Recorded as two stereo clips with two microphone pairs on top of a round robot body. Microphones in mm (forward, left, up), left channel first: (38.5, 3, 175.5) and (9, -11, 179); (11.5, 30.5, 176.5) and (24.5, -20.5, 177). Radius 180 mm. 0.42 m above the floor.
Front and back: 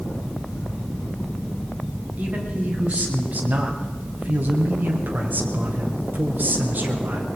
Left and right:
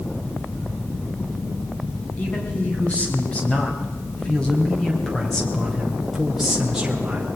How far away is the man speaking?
About 4.5 m.